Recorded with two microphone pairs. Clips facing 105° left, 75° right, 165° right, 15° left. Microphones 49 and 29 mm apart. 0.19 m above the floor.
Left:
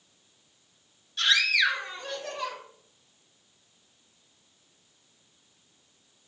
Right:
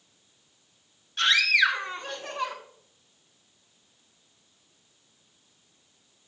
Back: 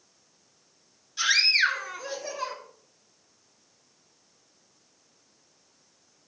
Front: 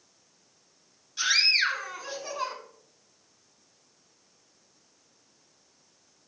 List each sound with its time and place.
1.2 s a scream: 70° right, 2 m; by 2.5 s 40° right, 2.5 m